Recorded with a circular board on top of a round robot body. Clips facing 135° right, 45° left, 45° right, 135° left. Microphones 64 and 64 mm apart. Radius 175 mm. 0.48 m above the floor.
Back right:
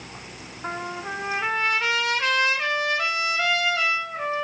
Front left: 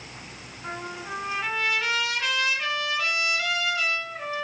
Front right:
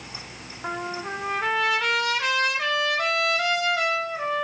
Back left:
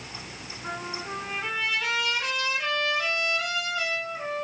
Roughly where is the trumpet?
Right.